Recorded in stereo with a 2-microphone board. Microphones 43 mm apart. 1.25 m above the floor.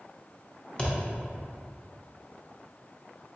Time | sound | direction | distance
0.8 | a thud | 20° left (ahead or behind) | 0.7 m